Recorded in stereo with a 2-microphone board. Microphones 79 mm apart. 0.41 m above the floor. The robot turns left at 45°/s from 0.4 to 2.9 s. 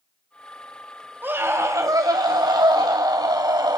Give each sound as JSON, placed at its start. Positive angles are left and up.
{"t": 1.2, "sound": "a scream", "azimuth_deg": -30, "distance_m": 2.0}